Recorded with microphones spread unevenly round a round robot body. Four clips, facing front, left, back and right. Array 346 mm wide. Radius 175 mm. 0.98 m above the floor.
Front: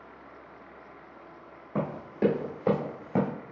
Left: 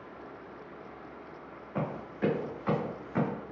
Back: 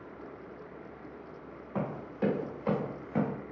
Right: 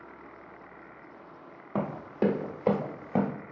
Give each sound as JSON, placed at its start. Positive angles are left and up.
{"t": 1.8, "sound": "running footsteps", "azimuth_deg": -55, "distance_m": 1.8}